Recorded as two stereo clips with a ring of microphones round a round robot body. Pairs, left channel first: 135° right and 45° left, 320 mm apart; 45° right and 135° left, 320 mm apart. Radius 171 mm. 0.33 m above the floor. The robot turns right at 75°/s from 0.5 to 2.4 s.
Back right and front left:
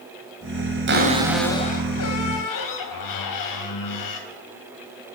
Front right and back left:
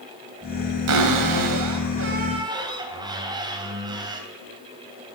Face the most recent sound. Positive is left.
turn(degrees=-150)